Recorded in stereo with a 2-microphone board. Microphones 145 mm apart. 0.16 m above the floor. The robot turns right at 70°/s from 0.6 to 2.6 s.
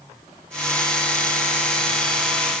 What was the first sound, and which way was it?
Only background noise.